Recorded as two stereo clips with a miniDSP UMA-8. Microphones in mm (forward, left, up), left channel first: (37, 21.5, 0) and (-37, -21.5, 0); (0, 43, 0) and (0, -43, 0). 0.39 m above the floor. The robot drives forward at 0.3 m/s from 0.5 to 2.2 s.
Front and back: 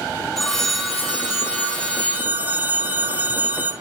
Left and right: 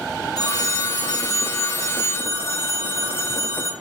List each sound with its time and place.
0.4 s a phone ringing: 115° left, 0.7 m; by 3.7 s 145° left, 1.0 m